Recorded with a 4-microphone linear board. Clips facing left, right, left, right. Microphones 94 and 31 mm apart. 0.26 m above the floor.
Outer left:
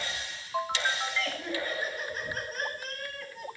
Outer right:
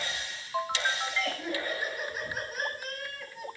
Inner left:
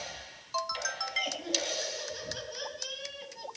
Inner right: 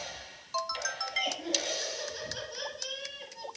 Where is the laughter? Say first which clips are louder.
Outer right 1 dB, inner right 2 dB; 10° right (ahead or behind), 4.5 m; by 3.5 s centre (ahead or behind), 2.0 m.